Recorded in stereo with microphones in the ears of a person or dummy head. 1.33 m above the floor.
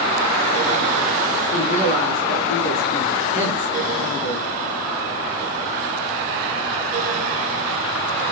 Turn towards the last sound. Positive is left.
turn(degrees=40)  # may be behind; listen again after turning